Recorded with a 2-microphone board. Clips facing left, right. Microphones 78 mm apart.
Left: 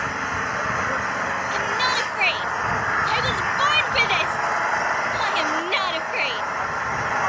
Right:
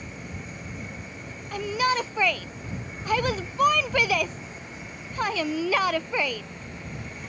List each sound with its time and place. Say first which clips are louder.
0.0 s an engine running: left 15 dB; 75° left (ahead or behind)
1.5 s a shout: right 1 dB; 10° right (ahead or behind)